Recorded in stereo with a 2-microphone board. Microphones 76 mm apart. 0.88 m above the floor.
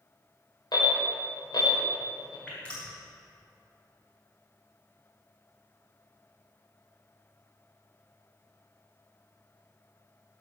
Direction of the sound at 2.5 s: 15° left (ahead or behind).